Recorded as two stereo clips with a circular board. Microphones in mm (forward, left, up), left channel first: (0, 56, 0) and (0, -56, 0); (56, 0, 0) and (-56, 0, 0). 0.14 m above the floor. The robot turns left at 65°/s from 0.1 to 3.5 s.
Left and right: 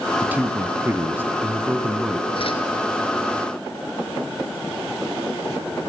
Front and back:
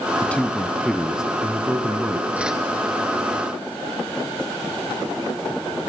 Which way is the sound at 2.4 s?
105° left.